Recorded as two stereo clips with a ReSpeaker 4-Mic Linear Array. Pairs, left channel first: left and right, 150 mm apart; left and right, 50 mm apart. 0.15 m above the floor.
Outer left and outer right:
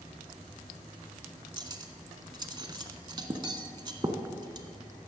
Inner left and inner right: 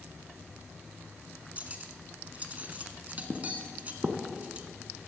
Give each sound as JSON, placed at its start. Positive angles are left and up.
{"t": 1.6, "sound": "cutlery clinking", "side_deg": -30, "distance_m": 0.7}